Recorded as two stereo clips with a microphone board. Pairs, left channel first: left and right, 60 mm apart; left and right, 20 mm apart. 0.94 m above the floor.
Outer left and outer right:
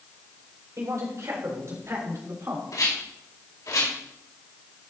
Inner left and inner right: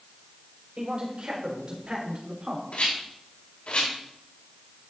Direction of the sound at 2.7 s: 70° left (ahead or behind).